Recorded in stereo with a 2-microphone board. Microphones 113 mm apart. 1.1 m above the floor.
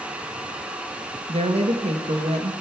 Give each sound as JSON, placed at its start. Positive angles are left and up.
{"t": 1.3, "sound": "a woman speaking", "side_deg": -65, "distance_m": 1.0}